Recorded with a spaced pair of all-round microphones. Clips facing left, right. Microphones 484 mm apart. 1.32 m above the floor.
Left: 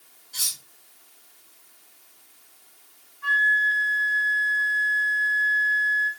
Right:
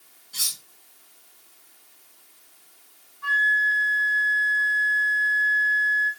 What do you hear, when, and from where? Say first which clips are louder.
0.3 s cutlery clinking: right 1 dB; 30° right (ahead or behind), 8 m
3.2 s a flute: even; 5° left (ahead or behind), 4 m